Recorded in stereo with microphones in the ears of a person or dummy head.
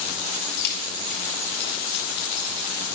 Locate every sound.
0.6 s keys jangling: 60° left (ahead or behind), 4 m; by 2.8 s 75° left (ahead or behind), 4.5 m